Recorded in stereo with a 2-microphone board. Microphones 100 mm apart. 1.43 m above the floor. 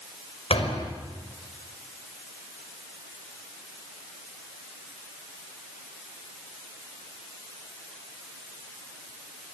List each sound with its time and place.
0.5 s a door slam: 70° left (ahead or behind), 5.5 m